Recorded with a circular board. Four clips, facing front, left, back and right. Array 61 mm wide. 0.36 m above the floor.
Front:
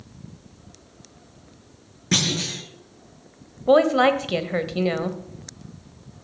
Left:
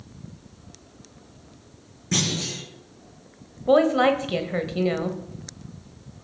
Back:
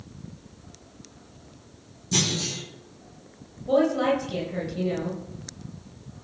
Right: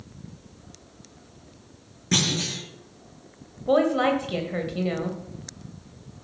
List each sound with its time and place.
2.1 s a clunk: 15° right, 6.5 m
3.7 s a woman speaking: 15° left, 1.6 m